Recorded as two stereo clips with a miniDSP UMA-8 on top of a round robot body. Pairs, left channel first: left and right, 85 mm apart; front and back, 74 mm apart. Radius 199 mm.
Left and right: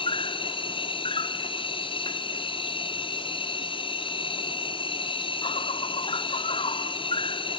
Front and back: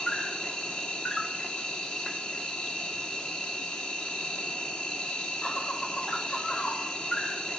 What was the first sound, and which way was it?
An insect, 80° left.